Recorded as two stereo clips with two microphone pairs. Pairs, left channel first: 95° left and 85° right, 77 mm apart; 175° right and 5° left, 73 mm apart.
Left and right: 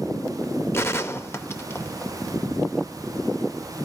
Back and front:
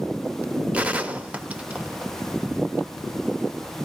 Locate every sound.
0.7 s a gunshot: 70° left, 0.7 m